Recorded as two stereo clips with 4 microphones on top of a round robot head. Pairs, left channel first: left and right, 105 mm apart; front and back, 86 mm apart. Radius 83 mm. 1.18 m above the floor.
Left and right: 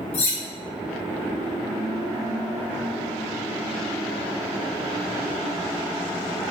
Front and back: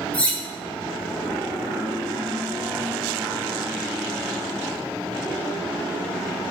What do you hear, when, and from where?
0.1 s cutlery clinking: 75° left, 0.6 m